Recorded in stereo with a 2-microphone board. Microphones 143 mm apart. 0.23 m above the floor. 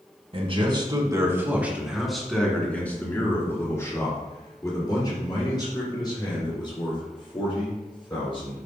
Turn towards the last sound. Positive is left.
turn(degrees=35)  # may be behind; listen again after turning